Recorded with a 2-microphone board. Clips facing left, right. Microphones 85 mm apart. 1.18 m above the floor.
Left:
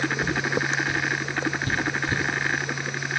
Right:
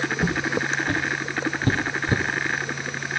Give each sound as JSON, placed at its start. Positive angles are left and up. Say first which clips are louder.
{"t": 0.2, "sound": "footsteps", "louder": "right 1 dB", "side_deg": -60, "distance_m": 2.5}